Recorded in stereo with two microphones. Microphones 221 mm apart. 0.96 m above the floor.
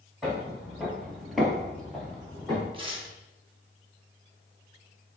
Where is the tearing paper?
25° right (ahead or behind), 0.9 m.